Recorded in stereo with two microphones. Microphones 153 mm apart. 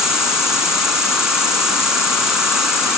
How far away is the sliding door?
I don't hear a sliding door.